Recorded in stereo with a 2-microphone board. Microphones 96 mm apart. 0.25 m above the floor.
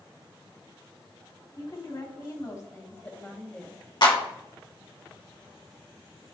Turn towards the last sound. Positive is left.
turn(degrees=55)  # may be behind; listen again after turning